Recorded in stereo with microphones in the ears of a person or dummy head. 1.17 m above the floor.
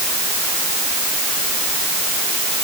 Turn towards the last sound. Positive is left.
No sound to turn to.